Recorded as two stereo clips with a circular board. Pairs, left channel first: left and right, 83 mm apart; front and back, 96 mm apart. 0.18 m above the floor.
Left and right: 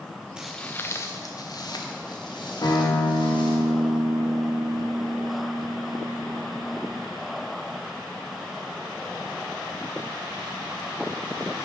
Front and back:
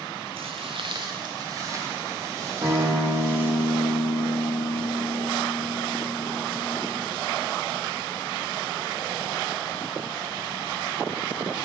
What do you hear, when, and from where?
0.4 s footsteps: 170° right, 0.7 m; by 3.6 s 115° left, 4.5 m
2.6 s a guitar: 125° left, 3.5 m